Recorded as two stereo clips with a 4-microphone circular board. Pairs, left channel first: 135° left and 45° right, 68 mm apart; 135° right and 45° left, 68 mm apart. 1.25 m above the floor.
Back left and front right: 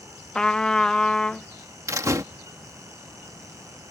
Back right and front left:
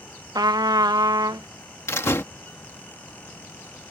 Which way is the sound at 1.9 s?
85° right.